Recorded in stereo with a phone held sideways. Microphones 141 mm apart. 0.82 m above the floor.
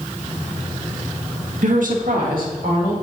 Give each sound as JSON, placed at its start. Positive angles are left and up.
{"t": 1.6, "sound": "a woman speaking", "side_deg": -60, "distance_m": 0.9}